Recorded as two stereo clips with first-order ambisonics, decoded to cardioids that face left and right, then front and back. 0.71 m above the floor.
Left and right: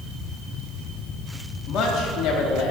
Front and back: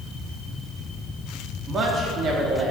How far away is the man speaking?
About 0.9 m.